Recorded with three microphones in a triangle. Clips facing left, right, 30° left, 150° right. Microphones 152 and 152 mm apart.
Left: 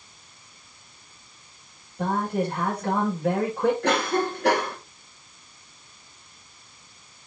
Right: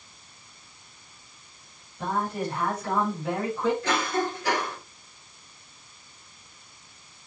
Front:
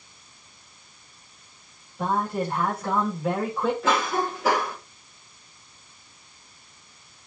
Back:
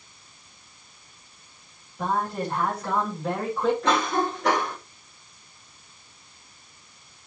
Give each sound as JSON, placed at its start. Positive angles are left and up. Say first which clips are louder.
{"t": 2.0, "sound": "a man speaking", "louder": "left 3 dB, front 1 dB", "azimuth_deg": 120, "distance_m": 7.5}
{"t": 3.8, "sound": "a cough", "louder": "left 3 dB, back 1 dB", "azimuth_deg": 115, "distance_m": 3.0}